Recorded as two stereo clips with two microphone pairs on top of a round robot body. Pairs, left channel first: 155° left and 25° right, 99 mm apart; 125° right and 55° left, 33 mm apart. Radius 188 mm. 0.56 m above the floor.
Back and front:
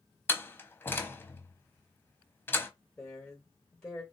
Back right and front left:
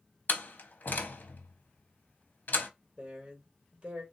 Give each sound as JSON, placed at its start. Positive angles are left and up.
{"t": 0.3, "sound": "a door slam", "azimuth_deg": -145, "distance_m": 0.8}
{"t": 3.0, "sound": "a woman speaking", "azimuth_deg": 80, "distance_m": 1.5}